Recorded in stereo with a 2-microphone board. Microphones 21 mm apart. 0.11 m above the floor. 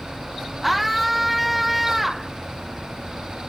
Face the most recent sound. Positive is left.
turn(degrees=-5)  # may be behind; listen again after turning